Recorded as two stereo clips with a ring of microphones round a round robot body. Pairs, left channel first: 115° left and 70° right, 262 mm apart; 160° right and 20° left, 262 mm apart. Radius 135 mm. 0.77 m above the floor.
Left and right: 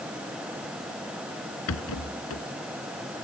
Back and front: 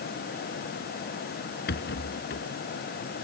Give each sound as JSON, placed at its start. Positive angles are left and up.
{"t": 1.7, "sound": "a rattle", "azimuth_deg": 150}